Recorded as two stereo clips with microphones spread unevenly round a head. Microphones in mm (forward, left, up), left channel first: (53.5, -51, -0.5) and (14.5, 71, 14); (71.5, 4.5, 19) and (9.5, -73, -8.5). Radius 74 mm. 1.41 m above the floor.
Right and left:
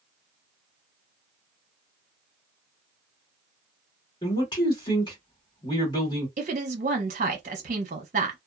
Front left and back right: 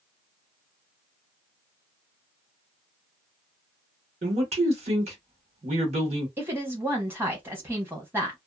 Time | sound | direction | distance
4.2 | a man speaking | 135° right | 1.5 m
6.4 | a woman speaking | 150° left | 0.9 m